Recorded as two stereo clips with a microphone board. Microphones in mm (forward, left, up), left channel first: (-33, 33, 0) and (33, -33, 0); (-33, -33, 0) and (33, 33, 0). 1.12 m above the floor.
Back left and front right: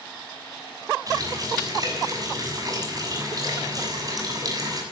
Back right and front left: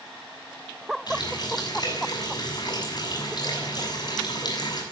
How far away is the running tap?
About 6.5 m.